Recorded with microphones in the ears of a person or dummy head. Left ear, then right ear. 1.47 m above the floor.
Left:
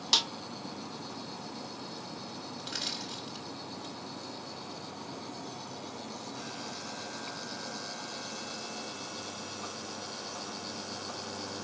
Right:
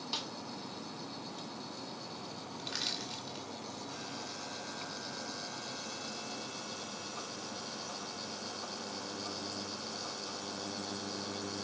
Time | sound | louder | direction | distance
0.1 | a snare drum | left 13 dB | 40° left (ahead or behind) | 0.6 m
2.6 | crushing | left 1 dB | 10° right (ahead or behind) | 2 m